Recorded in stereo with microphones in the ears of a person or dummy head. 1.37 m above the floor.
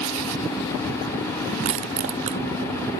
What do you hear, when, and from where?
1.6 s crushing: 50° right (ahead or behind), 0.6 m